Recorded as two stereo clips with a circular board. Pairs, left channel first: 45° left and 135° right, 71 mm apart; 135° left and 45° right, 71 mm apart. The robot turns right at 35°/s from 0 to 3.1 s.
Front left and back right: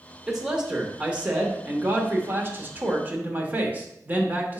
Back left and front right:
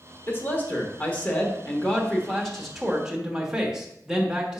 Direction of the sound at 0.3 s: 140° left.